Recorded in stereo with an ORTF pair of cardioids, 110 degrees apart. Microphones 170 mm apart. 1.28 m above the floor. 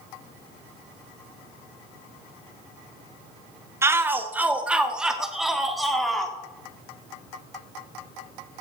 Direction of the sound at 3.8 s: 15° right.